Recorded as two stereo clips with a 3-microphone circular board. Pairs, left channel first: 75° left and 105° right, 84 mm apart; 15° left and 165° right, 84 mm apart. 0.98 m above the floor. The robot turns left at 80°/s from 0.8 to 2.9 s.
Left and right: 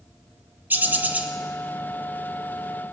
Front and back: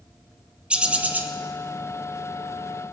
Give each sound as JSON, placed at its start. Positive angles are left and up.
{"t": 0.7, "sound": "a bird", "azimuth_deg": -110, "distance_m": 0.7}